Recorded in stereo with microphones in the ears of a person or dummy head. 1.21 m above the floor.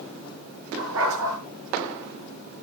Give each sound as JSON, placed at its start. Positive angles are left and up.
{"t": 0.8, "sound": "a dog barking", "side_deg": -75, "distance_m": 8.5}